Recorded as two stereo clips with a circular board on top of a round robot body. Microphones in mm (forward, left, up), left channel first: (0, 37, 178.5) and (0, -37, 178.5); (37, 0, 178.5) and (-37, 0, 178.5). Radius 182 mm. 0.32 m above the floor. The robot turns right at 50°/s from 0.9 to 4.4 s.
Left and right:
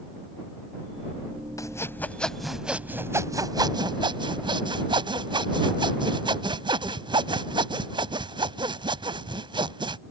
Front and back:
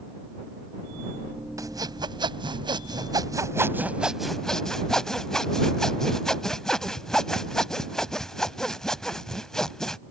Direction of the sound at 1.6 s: 135° left.